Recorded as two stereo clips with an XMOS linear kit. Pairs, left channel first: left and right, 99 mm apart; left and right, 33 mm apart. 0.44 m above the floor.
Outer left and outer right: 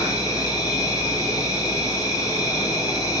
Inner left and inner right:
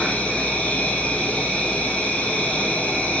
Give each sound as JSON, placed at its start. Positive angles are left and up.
{"t": 0.0, "sound": "an insect", "side_deg": 35, "distance_m": 8.0}